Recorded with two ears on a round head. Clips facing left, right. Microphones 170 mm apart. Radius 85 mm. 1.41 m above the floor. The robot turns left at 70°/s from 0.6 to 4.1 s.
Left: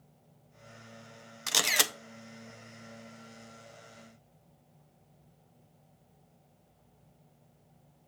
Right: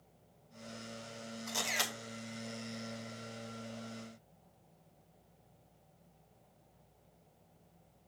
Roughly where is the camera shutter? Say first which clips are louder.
Left 7 dB; left.